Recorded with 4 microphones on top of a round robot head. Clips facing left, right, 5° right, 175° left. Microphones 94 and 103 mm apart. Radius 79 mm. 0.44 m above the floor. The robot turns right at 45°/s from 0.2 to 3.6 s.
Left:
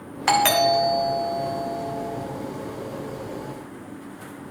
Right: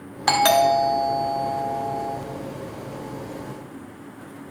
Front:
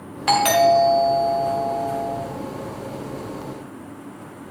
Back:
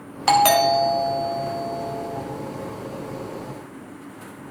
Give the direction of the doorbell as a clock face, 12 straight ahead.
5 o'clock.